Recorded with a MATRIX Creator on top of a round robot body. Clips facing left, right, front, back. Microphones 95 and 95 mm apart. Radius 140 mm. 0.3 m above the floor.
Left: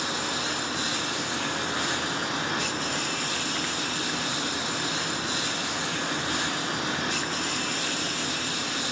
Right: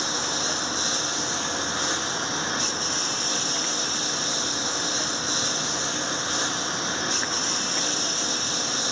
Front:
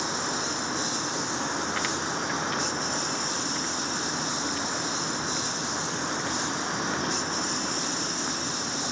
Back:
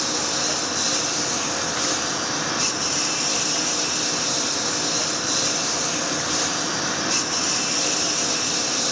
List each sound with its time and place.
0.0 s a lawn mower: 155° right